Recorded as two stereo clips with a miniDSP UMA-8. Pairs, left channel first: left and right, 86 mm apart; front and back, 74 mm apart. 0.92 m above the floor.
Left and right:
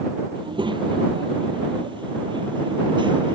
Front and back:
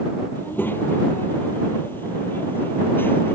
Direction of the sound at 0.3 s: 65° right.